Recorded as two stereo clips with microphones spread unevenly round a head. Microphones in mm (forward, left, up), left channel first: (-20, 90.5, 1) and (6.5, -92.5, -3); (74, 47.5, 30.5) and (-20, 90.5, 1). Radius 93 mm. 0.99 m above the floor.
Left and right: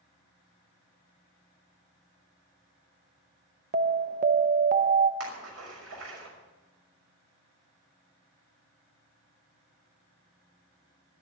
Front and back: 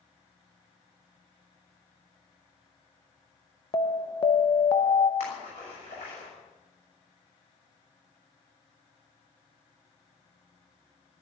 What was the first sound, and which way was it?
An alarm, 85° right.